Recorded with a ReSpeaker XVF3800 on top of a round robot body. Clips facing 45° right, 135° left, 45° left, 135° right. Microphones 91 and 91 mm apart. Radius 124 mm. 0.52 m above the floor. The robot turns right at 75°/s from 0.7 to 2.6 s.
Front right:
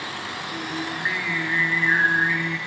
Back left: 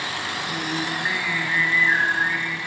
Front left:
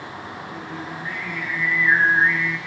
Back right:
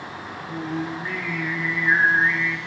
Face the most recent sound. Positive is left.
turn(degrees=-25)